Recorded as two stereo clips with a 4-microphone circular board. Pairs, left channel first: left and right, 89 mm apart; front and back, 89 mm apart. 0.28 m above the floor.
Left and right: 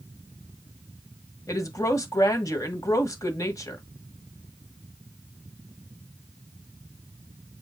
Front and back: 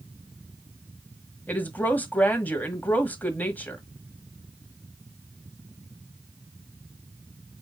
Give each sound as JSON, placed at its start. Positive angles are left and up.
{"t": 1.5, "sound": "a woman speaking", "azimuth_deg": 60, "distance_m": 1.3}